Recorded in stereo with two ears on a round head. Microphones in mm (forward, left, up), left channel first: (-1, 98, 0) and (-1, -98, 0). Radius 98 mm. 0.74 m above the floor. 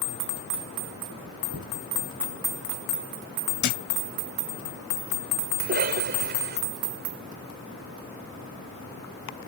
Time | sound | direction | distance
1.5 | knocking | 75° right (ahead or behind) | ?
3.6 | a thud | 55° left (ahead or behind) | ?
5.6 | a cough | 50° right (ahead or behind) | ?